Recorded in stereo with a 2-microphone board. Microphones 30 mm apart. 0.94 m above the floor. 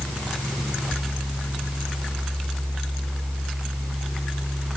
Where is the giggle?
I don't hear a giggle.